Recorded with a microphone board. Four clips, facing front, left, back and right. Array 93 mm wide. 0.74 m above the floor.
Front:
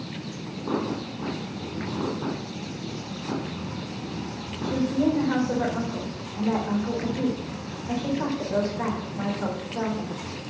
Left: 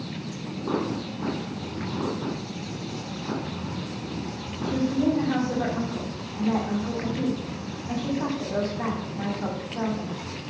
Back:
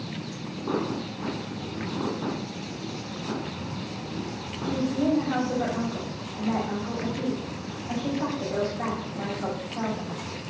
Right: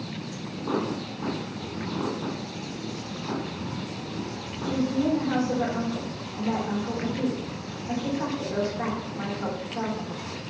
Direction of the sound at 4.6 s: 10° right.